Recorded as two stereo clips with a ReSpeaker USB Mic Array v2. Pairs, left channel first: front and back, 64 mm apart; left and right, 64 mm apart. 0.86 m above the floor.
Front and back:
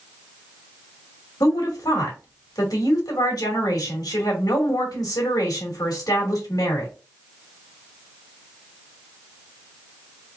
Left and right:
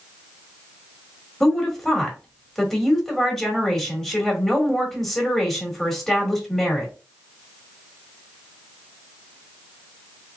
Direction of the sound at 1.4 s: 5° left.